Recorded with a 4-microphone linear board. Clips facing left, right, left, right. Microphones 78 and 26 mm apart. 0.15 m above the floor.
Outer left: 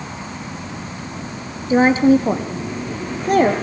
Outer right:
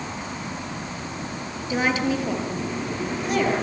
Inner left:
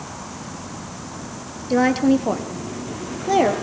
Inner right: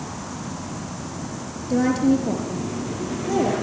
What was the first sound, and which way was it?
A woman speaking, 30° left (ahead or behind).